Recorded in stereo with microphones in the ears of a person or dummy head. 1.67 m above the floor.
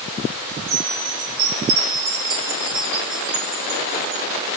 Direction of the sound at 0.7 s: 70° right (ahead or behind).